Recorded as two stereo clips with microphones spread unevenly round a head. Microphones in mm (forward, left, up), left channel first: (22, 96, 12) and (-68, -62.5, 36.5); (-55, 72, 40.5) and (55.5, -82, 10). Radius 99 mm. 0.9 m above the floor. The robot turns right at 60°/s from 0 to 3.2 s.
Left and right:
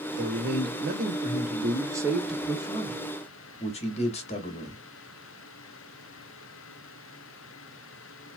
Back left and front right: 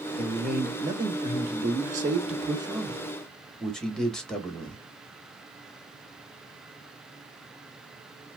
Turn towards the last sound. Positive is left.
turn(degrees=30)